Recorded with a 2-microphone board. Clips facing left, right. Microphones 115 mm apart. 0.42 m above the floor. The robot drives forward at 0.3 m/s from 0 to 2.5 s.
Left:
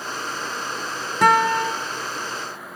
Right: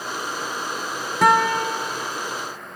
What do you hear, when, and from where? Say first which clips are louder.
1.2 s a guitar: even; centre (ahead or behind), 0.6 m